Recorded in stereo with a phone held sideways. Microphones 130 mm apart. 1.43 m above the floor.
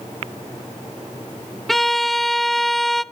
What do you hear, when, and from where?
1.7 s a violin: centre (ahead or behind), 0.7 m